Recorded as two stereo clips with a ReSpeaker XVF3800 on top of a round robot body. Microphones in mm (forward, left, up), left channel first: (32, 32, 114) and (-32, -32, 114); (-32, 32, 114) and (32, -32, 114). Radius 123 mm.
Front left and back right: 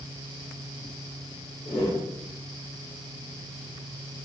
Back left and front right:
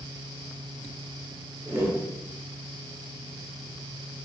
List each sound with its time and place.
1.6 s a whoosh: 10° left, 0.9 m